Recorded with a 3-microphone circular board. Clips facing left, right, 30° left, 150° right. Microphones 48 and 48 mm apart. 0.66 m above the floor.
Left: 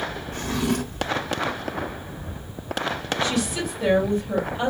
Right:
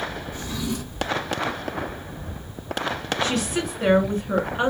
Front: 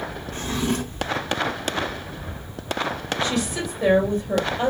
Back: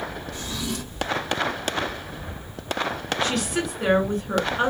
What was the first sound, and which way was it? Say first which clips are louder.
A drawer: left 5 dB, front 6 dB; 75° left.